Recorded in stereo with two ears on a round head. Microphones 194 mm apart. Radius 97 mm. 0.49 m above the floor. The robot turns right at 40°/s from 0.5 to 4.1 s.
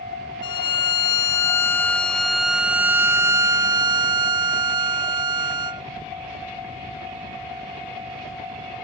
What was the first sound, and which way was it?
A violin, 20° left (ahead or behind).